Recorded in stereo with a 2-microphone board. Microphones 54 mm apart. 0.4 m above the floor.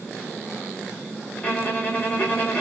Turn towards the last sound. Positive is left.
turn(degrees=25)  # may be behind; listen again after turning